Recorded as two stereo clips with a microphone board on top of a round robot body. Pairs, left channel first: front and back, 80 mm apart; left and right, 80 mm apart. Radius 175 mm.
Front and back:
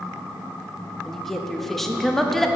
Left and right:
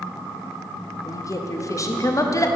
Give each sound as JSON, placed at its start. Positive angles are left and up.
{"t": 1.1, "sound": "a woman speaking", "azimuth_deg": 85, "distance_m": 1.0}